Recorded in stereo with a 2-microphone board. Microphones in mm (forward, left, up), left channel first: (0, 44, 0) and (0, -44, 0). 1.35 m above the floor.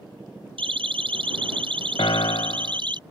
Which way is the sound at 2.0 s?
75° left (ahead or behind).